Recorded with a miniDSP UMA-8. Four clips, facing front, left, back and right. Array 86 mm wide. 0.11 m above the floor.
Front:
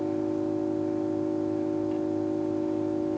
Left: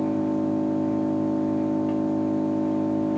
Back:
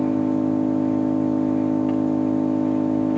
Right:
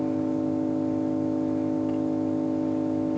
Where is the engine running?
165° left, 3.5 m.